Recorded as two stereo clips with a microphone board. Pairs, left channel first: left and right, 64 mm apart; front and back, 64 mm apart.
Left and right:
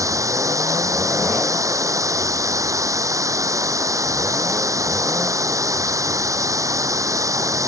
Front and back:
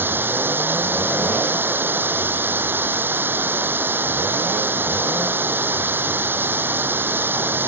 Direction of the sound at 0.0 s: 120° right.